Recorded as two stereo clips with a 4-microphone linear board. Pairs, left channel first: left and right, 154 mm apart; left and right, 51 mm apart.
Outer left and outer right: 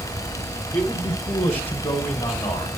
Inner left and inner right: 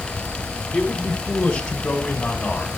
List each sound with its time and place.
0.7 s a man speaking: 10° left (ahead or behind), 1.7 m